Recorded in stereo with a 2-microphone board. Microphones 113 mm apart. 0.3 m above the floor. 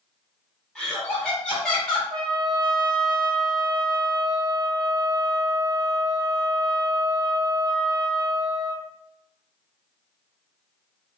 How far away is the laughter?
About 0.9 m.